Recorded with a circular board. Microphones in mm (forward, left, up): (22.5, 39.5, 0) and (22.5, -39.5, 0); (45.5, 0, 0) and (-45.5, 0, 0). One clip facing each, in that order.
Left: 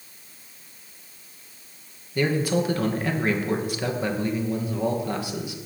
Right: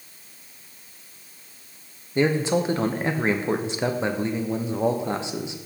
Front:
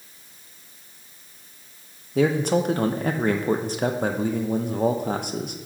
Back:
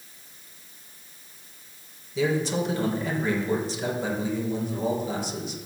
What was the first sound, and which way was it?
A man speaking, 25° right.